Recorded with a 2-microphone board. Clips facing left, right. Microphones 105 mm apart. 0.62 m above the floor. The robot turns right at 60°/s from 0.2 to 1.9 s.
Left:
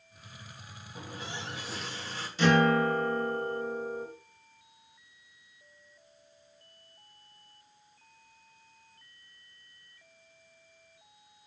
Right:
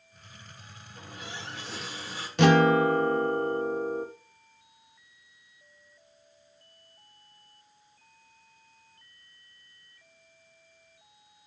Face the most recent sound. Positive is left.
turn(degrees=-70)  # may be behind; listen again after turning